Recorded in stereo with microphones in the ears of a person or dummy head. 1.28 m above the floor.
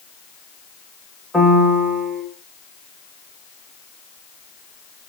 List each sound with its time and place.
1.3 s a piano: centre (ahead or behind), 1.6 m